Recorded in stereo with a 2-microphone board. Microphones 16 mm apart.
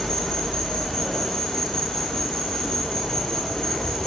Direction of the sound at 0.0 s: 70° left (ahead or behind).